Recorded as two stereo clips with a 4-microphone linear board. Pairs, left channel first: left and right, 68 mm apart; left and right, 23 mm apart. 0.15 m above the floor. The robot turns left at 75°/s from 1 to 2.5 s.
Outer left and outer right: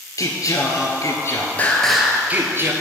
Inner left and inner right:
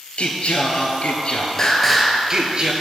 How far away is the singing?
About 0.8 m.